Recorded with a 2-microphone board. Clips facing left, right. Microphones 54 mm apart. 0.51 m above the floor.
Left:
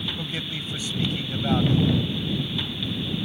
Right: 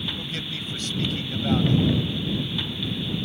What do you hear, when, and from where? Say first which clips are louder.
0.2 s a man speaking: left 1 dB; 10° left (ahead or behind)